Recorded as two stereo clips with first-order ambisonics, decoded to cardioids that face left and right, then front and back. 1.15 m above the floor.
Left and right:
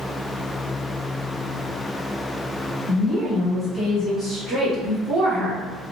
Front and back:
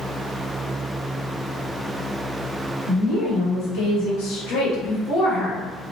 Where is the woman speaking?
10° left, 1.7 m; by 5.7 s 60° right, 0.9 m.